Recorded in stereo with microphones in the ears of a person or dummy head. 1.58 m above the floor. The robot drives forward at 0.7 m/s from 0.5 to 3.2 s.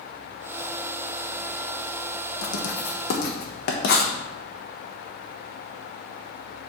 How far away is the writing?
About 1.1 m.